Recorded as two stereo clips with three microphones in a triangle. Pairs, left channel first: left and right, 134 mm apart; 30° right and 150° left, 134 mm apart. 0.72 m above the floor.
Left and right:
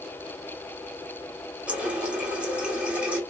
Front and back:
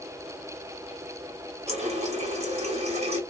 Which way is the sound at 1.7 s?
170° right.